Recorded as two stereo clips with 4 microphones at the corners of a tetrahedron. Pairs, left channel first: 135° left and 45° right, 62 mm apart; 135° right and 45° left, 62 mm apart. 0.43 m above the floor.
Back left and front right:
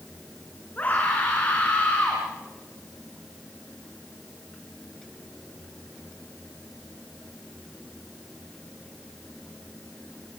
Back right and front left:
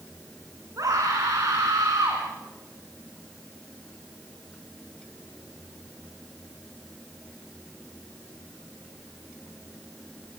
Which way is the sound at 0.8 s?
70° left.